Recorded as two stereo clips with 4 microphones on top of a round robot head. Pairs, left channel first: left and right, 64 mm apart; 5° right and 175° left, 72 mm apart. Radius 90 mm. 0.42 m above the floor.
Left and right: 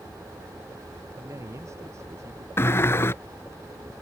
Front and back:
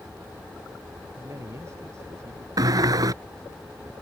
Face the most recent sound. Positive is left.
turn(degrees=140)